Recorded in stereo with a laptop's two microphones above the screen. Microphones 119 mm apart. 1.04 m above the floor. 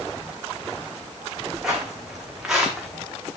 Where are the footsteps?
5° right (ahead or behind), 4.5 m; by 2.9 s centre (ahead or behind), 5 m.